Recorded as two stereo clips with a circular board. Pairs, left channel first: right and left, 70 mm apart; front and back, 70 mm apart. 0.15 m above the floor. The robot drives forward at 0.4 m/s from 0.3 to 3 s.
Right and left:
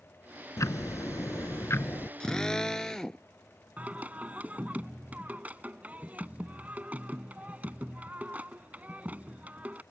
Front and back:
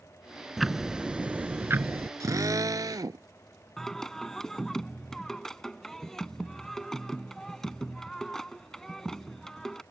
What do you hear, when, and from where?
0.6 s ticking: 90° right; by 2.1 s 140° right
2.2 s a drill: 165° right; by 3.2 s 170° right
3.8 s singing: 70° left